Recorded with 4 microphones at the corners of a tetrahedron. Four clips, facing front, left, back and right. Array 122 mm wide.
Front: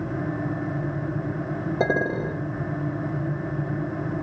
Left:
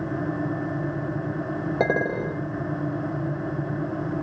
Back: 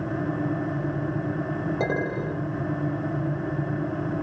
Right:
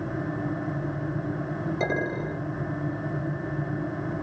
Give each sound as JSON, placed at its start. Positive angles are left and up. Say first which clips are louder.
{"t": 1.8, "sound": "a clink", "louder": "left 5 dB, front 6 dB", "azimuth_deg": 70, "distance_m": 3.5}